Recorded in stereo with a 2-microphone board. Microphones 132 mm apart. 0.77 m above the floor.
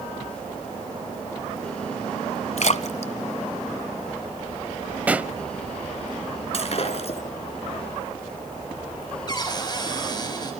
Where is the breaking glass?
50° left (ahead or behind), 5 m.